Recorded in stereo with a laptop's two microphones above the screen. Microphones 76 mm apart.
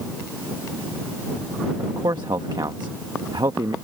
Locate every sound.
1.8 s a man speaking: 70° right (ahead or behind)